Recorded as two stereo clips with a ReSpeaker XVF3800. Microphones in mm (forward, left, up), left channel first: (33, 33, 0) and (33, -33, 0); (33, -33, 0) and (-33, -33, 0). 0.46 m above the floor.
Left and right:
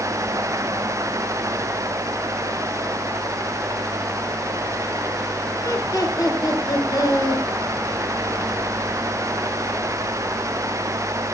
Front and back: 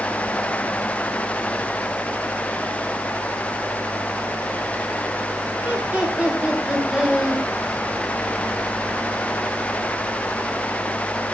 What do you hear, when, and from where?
5.6 s laughter: 115° left, 5.5 m; by 7.4 s 100° left, 5 m